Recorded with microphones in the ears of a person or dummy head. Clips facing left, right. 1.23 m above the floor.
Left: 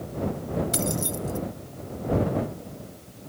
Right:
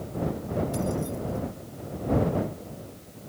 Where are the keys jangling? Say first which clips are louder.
Even; 85° left.